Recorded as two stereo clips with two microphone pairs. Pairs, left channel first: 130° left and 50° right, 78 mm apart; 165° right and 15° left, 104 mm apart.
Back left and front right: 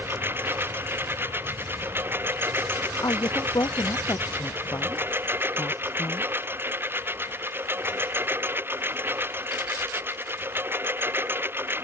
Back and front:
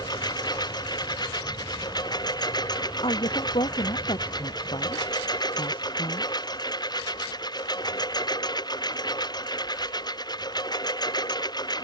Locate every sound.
0.0 s a lawn mower: 115° right
3.0 s a woman speaking: 170° left